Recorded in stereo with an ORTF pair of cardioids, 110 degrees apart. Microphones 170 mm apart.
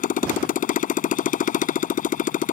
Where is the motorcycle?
55° left.